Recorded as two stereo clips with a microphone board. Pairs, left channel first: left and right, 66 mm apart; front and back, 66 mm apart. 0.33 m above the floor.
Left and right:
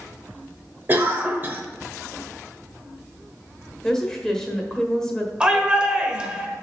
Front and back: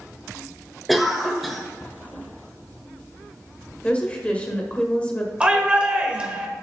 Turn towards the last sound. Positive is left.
turn(degrees=-140)